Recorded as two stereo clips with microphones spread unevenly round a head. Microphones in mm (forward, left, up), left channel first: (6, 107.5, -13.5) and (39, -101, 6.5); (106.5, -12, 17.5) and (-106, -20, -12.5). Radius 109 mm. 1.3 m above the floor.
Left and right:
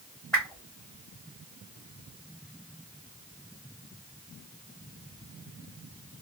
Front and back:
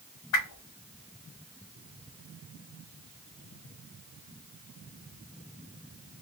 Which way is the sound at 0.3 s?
10° left.